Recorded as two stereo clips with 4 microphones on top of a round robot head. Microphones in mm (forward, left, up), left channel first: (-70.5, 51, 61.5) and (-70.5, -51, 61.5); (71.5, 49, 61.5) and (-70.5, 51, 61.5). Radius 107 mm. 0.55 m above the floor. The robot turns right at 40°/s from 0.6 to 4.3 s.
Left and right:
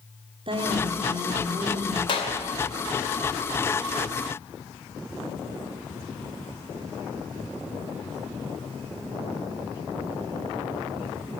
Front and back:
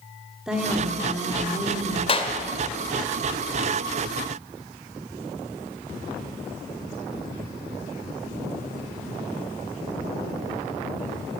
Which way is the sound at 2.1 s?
45° left.